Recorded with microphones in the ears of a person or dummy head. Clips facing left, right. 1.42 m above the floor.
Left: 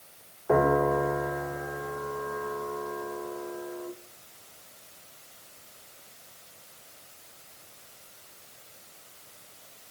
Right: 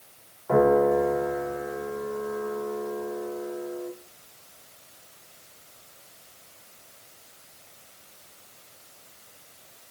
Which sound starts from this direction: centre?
A piano, at 0.5 s.